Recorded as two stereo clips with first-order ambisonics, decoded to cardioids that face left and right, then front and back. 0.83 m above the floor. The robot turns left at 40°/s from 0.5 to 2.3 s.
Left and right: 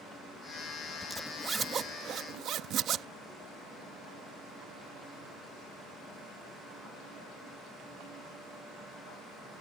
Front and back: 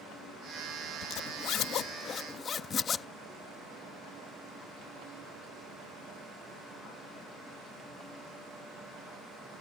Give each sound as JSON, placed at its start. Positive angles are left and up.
{"t": 1.0, "sound": "a zipper", "azimuth_deg": -5}